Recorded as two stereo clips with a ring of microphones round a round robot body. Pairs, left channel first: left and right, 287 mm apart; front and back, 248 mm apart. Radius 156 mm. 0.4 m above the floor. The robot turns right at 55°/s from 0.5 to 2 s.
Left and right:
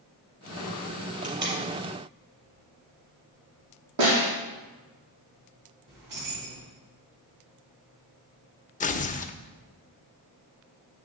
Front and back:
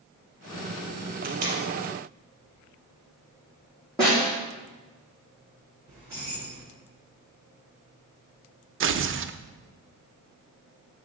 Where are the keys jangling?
100° right, 3 m.